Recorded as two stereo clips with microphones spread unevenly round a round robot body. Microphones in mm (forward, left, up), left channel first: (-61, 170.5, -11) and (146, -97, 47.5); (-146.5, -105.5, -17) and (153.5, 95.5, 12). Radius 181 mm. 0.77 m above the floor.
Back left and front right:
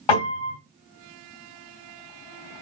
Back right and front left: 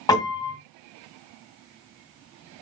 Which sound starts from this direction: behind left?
A piano, at 0.1 s.